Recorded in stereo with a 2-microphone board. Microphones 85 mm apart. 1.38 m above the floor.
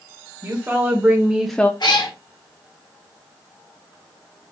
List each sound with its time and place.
0.4 s a woman speaking: 30° right (ahead or behind), 2 m; by 1.7 s 25° left (ahead or behind), 0.5 m
1.8 s a cat meowing: 55° left (ahead or behind), 3 m